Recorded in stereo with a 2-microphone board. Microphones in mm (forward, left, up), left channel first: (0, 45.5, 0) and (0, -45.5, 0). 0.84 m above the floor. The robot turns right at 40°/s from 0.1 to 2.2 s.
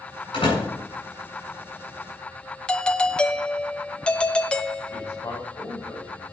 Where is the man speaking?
30° left (ahead or behind), 6 m.